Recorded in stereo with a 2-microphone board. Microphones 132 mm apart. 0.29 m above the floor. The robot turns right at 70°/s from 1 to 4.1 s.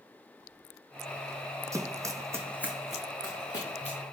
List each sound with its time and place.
1.7 s running footsteps: 25° right (ahead or behind), 0.8 m; by 4.0 s 60° left (ahead or behind), 2.5 m